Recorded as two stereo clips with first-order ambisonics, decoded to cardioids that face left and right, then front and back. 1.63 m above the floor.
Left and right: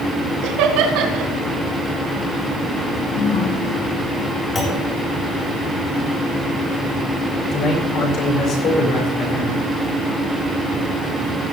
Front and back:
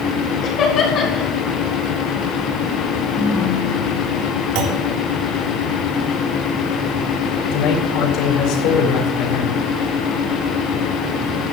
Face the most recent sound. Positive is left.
turn(degrees=35)